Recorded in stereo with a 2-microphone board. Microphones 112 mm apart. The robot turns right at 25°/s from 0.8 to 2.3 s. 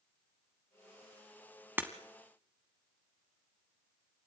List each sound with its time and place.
1.8 s breaking glass: 20° right (ahead or behind), 1.3 m; by 1.9 s 15° right (ahead or behind), 1.3 m